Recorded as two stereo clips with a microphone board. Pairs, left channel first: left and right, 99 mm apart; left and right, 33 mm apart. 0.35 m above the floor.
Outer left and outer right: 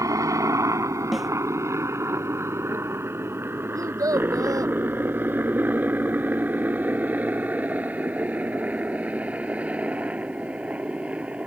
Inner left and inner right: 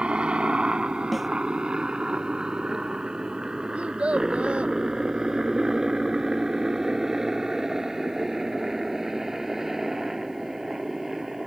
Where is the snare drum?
Centre (ahead or behind).